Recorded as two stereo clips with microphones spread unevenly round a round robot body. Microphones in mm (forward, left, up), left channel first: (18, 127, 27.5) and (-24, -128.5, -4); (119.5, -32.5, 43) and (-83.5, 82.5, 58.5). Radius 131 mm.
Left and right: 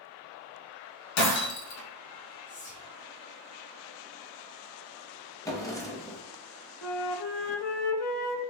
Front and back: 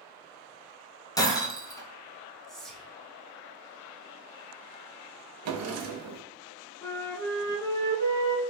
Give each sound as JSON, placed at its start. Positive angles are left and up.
{"t": 1.2, "sound": "breaking glass", "azimuth_deg": 45, "distance_m": 1.2}
{"t": 2.5, "sound": "whispering", "azimuth_deg": 50, "distance_m": 0.8}
{"t": 5.5, "sound": "a drawer", "azimuth_deg": 160, "distance_m": 0.9}
{"t": 6.8, "sound": "a flute", "azimuth_deg": 50, "distance_m": 1.0}